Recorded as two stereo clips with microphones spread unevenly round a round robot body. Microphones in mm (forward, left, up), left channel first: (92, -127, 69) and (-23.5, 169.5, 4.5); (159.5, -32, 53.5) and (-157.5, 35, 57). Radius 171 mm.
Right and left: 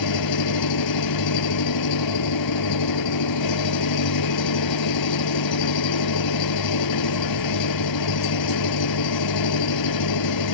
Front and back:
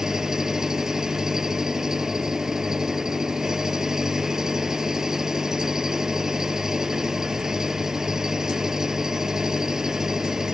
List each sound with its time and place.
0.0 s an engine running: 105° right